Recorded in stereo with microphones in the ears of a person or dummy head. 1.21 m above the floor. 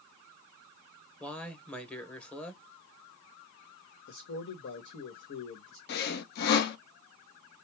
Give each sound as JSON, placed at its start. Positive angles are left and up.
{"t": 1.2, "sound": "a man speaking", "side_deg": 10, "distance_m": 0.8}
{"t": 4.1, "sound": "a man speaking", "side_deg": 55, "distance_m": 1.2}
{"t": 5.9, "sound": "sawing", "side_deg": 55, "distance_m": 0.6}